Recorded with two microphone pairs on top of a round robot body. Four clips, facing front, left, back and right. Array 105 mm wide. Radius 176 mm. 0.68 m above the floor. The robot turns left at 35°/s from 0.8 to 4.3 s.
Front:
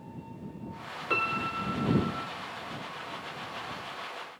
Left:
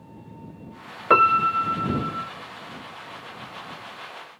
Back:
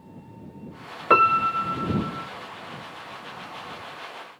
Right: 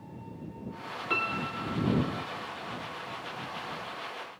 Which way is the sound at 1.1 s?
130° left.